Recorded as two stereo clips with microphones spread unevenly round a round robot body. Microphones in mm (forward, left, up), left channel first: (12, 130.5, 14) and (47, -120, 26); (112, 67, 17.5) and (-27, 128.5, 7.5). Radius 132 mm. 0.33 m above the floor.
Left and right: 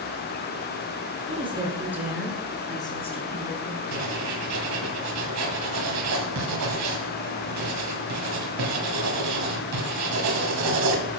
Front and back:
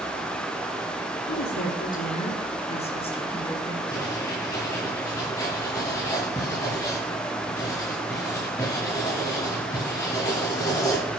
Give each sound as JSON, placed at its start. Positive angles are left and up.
{"t": 1.3, "sound": "a woman speaking", "azimuth_deg": -15, "distance_m": 3.5}
{"t": 3.9, "sound": "writing", "azimuth_deg": -100, "distance_m": 2.5}